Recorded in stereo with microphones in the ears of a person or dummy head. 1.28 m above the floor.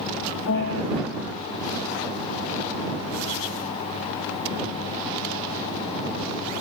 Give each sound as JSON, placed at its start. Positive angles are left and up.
{"t": 0.5, "sound": "a piano", "side_deg": 55}